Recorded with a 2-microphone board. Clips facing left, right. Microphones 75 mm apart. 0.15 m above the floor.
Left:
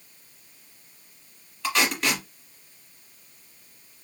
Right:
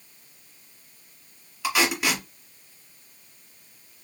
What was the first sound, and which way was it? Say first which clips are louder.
Tape being pulled: right 1 dB; 5° right (ahead or behind).